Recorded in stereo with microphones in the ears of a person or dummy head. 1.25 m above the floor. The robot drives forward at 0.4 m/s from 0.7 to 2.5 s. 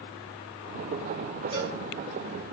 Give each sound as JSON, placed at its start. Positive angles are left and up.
{"t": 1.5, "sound": "a cowbell", "side_deg": -25, "distance_m": 3.0}